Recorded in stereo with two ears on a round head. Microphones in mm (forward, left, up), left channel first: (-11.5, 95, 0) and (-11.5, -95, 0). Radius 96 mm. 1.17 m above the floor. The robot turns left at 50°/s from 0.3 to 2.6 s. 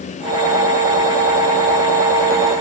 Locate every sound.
Only background noise.